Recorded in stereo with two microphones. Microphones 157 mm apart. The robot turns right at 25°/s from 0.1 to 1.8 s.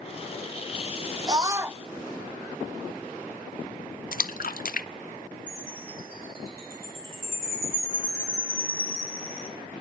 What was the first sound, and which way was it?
A scream, 25° right (ahead or behind).